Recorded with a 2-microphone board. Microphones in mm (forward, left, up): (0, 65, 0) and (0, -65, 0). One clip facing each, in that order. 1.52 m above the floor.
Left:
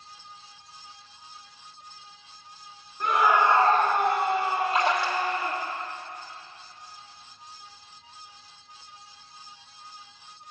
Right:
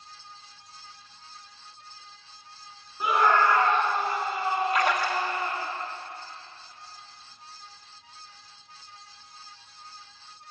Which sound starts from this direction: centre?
A scream, at 3.0 s.